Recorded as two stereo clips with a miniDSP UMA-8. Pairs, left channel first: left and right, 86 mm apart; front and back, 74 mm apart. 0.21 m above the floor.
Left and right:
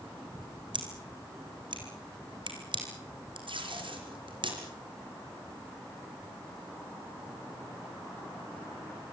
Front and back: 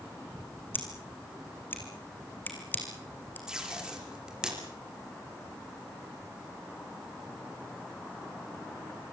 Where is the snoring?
No snoring in this recording.